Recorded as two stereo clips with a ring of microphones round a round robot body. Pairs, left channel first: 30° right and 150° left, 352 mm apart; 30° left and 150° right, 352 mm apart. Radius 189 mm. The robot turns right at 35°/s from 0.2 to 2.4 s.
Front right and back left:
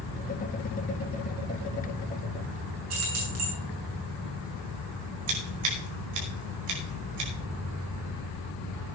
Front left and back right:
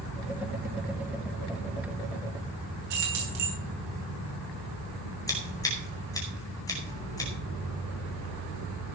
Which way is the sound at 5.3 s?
110° left.